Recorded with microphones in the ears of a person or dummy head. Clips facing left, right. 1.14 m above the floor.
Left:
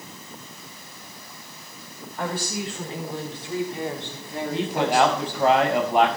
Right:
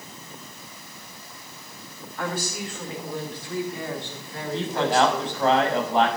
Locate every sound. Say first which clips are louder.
2.2 s a woman speaking: left 1 dB; 30° left (ahead or behind), 4.5 m; by 5.5 s 10° left (ahead or behind), 2 m
4.5 s a man speaking: even; 10° left (ahead or behind), 6 m